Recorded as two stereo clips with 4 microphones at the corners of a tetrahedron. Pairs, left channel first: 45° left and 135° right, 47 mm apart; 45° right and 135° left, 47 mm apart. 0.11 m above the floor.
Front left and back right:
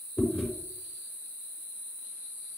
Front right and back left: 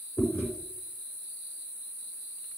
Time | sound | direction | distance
0.2 | chewing | 50° right | 4.5 m